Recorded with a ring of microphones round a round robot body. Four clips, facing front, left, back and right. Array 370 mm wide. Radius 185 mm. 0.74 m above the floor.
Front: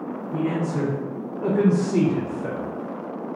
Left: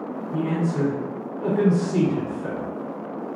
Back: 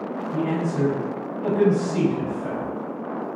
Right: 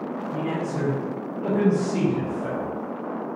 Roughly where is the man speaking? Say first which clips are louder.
Left 4 dB, even; ahead.